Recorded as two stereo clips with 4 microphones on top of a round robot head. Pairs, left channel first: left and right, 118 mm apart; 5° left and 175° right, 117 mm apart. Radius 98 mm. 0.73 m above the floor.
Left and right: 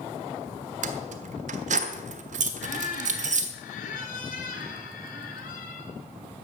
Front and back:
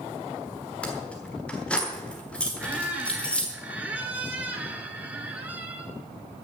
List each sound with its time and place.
0.8 s keys jangling: 80° right, 1.3 m
2.6 s a squeak: 105° left, 2 m